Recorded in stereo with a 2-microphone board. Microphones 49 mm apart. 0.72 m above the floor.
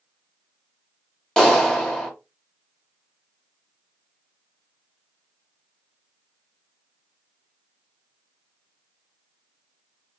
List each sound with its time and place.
1.4 s a clap: 10° left (ahead or behind), 1.0 m